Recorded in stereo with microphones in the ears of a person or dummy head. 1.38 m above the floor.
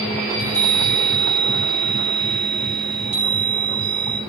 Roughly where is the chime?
Right.